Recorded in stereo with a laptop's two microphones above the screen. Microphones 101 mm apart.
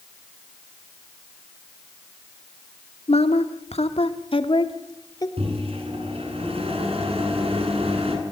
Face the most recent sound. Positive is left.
turn(degrees=-70)  # may be behind; listen again after turning